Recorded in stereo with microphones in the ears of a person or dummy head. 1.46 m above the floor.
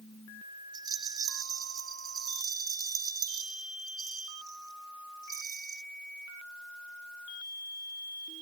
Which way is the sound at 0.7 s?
25° right (ahead or behind).